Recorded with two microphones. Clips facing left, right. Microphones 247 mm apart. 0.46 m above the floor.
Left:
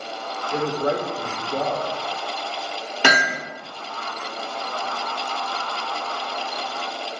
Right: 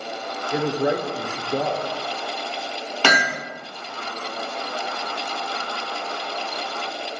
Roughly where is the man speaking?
Centre.